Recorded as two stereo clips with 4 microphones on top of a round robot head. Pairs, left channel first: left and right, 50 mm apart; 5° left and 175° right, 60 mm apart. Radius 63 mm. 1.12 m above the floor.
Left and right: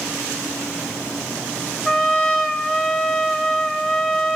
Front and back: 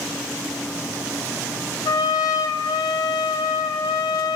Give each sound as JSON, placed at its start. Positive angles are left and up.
{"t": 1.9, "sound": "a trumpet", "azimuth_deg": 10, "distance_m": 2.5}